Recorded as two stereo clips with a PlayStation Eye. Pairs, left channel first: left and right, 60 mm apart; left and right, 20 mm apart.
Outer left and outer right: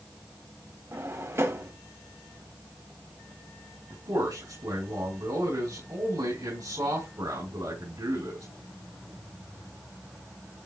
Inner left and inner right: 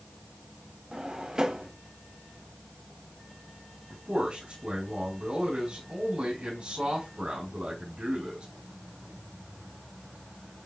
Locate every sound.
0.9 s a drawer: 45° right (ahead or behind), 1.1 m
3.9 s a man speaking: 80° right, 5.5 m